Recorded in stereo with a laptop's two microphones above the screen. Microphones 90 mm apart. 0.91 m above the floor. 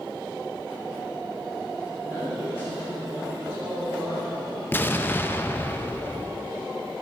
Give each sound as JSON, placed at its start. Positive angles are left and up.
{"t": 2.0, "sound": "a man speaking", "side_deg": -25, "distance_m": 1.5}
{"t": 4.7, "sound": "an explosion", "side_deg": 20, "distance_m": 0.5}